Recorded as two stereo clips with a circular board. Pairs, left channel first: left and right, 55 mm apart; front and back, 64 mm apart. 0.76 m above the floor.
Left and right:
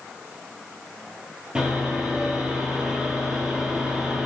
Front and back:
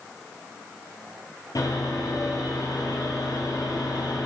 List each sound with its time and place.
1.6 s sawing: 15° right, 9 m